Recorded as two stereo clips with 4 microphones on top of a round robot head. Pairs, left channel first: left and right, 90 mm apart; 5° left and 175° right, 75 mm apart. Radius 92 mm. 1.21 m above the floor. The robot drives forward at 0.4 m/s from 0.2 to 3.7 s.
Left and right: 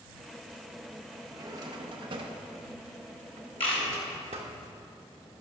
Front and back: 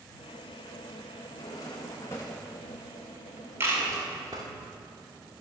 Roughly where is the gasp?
I don't hear a gasp.